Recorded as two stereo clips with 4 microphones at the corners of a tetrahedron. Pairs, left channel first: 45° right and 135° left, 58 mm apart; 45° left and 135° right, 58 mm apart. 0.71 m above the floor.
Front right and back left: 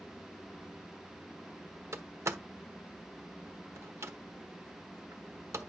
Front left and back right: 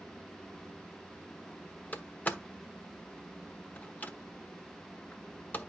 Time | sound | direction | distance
1.9 | a door slam | 100° left | 1.1 m